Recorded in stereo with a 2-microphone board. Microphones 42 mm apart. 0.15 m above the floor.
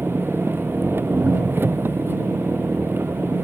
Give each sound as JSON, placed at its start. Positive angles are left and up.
{"t": 0.0, "sound": "an engine running", "side_deg": -65}